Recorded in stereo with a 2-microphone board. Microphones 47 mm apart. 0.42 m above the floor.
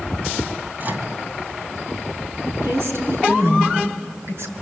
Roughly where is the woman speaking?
Right.